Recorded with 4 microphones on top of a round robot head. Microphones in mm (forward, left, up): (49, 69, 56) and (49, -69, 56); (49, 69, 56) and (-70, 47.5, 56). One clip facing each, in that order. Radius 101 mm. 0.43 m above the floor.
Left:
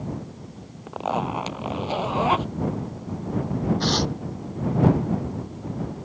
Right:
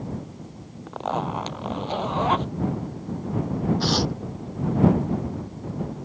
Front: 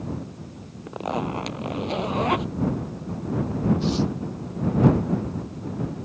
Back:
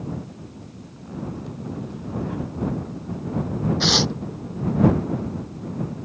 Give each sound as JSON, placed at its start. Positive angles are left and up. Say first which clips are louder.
{"t": 0.9, "sound": "a zipper", "louder": "left 1 dB, front 7 dB", "azimuth_deg": 5}
{"t": 3.8, "sound": "tearing paper", "louder": "even, back 1 dB", "azimuth_deg": -175}